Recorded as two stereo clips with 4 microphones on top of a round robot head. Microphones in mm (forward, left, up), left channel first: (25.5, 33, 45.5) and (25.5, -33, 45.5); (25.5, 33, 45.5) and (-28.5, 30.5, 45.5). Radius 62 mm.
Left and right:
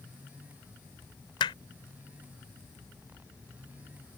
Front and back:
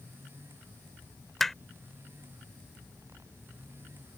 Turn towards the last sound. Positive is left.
turn(degrees=90)